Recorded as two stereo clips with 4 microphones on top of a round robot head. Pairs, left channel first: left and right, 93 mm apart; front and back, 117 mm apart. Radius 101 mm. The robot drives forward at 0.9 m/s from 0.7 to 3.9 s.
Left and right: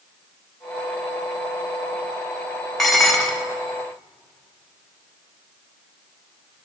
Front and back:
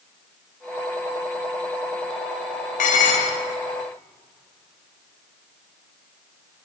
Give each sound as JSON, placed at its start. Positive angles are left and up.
{"t": 2.8, "sound": "dishes clattering", "azimuth_deg": 0, "distance_m": 1.1}